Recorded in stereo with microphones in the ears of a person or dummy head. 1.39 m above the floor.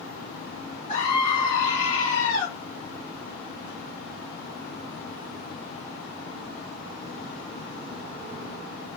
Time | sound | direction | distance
0.9 | a scream | 20° left (ahead or behind) | 0.9 m